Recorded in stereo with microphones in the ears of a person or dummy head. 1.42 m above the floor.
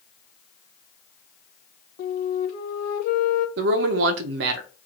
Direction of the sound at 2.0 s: 40° left (ahead or behind).